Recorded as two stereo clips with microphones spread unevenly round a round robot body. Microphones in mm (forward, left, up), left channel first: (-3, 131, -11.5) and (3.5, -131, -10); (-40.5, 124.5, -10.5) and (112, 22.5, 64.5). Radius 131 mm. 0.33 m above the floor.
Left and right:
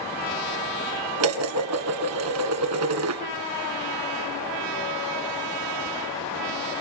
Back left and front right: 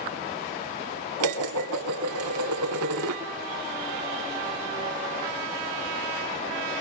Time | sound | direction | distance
1.2 | dishes clattering | 60° right | 2.5 m